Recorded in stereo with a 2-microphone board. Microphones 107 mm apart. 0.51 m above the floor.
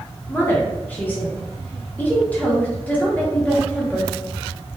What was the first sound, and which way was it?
A woman speaking, 15° left (ahead or behind).